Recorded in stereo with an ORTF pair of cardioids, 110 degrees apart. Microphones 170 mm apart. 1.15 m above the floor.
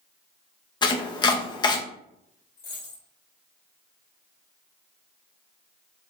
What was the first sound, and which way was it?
Chopping, 25° left.